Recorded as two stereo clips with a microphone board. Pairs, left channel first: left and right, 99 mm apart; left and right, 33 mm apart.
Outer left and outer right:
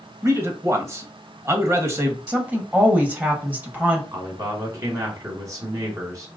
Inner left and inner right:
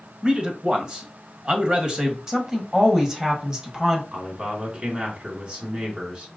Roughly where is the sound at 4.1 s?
Right.